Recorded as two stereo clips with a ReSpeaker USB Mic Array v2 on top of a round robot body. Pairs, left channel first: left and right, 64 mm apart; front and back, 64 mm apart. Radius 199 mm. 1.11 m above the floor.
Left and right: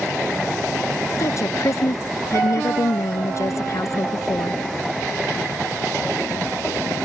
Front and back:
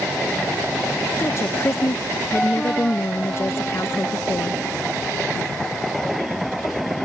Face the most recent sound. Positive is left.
turn(degrees=50)